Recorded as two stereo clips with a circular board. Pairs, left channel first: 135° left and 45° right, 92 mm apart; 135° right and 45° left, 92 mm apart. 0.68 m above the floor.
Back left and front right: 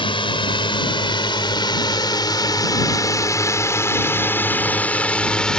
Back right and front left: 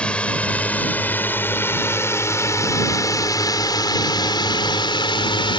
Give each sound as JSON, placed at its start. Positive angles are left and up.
{"t": 0.0, "sound": "a drone", "azimuth_deg": 150}